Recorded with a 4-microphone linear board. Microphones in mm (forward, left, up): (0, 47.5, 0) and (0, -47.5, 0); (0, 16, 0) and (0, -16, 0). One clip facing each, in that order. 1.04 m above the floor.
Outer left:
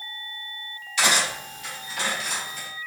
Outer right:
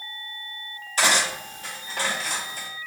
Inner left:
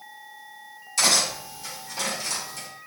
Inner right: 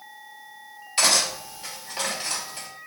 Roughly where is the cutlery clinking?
Right.